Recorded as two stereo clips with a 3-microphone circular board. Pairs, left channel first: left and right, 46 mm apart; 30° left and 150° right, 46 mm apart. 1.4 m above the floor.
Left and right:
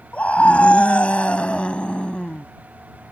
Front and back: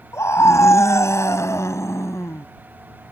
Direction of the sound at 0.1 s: 30° left.